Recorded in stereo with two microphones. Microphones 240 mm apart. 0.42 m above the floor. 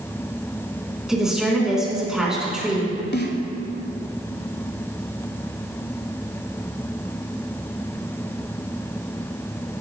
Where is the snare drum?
45° left (ahead or behind), 1.0 m.